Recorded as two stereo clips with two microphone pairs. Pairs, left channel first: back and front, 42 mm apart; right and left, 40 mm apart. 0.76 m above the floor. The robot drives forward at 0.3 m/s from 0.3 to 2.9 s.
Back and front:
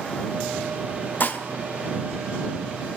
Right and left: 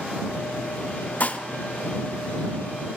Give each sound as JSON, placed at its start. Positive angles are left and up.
{"t": 1.2, "sound": "dishes clattering", "azimuth_deg": -140, "distance_m": 0.8}